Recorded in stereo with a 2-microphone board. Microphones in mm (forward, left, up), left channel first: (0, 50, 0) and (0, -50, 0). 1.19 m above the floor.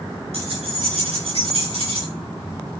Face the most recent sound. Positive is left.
turn(degrees=-85)